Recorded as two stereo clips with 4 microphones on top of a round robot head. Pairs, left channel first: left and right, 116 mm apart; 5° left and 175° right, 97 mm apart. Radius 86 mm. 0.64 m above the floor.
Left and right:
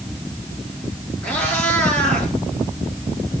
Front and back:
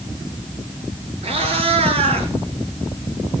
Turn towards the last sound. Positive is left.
turn(degrees=170)